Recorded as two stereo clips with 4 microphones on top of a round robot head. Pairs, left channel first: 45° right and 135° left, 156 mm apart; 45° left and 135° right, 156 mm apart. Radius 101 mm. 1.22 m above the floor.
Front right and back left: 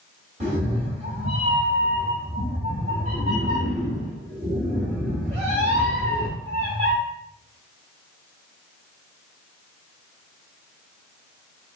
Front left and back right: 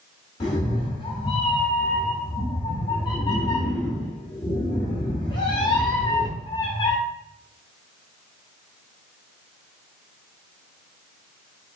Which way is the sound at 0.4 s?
95° left.